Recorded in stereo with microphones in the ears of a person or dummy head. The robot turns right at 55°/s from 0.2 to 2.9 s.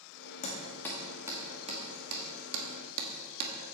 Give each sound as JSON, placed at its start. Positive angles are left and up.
{"t": 0.4, "sound": "hammering", "side_deg": 35, "distance_m": 2.0}